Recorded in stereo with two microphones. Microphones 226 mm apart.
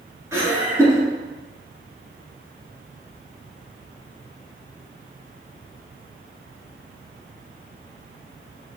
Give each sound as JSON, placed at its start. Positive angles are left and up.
{"t": 0.3, "sound": "laughter", "side_deg": -15, "distance_m": 1.7}